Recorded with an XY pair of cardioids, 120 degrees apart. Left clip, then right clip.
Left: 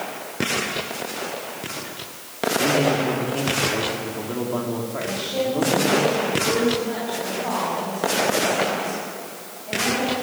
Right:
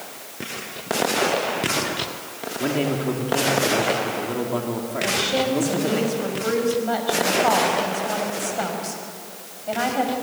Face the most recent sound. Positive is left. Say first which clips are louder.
# right 5 dB
turn(degrees=-55)